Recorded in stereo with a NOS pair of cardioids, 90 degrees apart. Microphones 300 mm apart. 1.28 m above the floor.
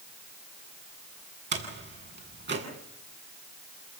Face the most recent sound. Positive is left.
turn(degrees=-35)